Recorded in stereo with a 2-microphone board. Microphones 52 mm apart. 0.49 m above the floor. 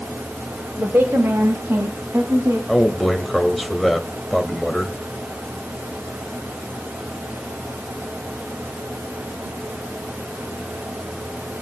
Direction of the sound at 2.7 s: Centre (ahead or behind).